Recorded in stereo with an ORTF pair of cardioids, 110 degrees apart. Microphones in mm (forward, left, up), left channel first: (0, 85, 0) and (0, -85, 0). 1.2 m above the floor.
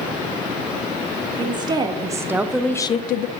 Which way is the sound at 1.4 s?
30° right.